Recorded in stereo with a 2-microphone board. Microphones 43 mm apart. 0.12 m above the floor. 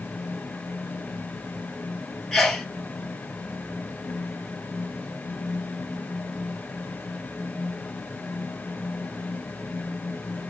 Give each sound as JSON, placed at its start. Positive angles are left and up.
{"t": 2.3, "sound": "a sneeze", "side_deg": 5, "distance_m": 1.2}